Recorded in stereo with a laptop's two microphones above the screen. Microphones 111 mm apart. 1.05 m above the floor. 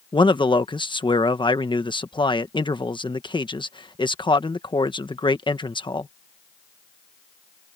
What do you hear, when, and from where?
0.1 s a man speaking: 45° left (ahead or behind)